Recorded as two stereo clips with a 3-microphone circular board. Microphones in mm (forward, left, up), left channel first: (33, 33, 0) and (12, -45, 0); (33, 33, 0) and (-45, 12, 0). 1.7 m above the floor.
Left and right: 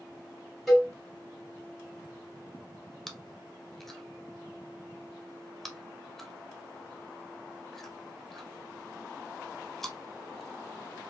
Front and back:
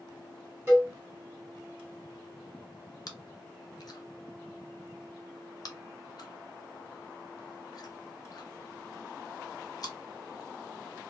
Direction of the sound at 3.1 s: 10° right.